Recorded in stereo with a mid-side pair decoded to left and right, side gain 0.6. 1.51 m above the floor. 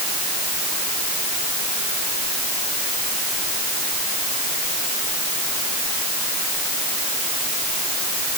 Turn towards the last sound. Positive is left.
No sound to turn to.